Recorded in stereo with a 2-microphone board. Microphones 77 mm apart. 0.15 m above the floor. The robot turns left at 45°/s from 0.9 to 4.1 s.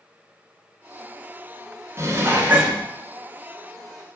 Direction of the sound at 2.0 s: 115° right.